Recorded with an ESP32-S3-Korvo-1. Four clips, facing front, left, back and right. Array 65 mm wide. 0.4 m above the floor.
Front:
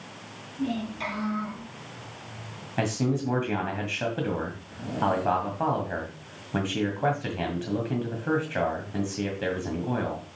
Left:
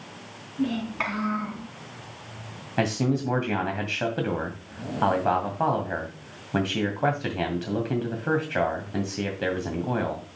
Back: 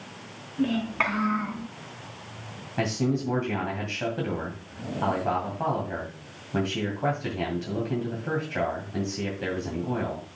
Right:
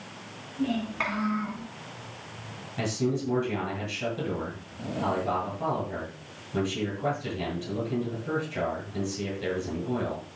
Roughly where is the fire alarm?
I don't hear a fire alarm.